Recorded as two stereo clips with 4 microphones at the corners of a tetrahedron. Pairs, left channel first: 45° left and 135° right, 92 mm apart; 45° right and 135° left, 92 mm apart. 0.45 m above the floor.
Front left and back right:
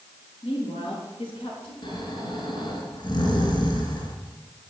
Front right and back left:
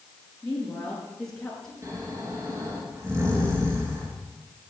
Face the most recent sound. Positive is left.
turn(degrees=75)